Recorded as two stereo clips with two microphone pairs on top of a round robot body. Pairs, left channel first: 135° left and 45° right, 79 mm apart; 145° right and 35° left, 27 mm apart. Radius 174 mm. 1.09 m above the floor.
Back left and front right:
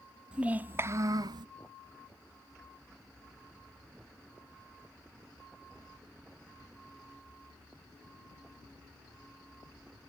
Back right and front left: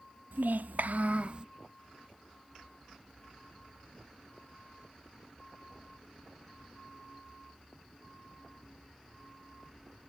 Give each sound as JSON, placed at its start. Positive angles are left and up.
{"t": 0.3, "sound": "a child speaking", "azimuth_deg": 35}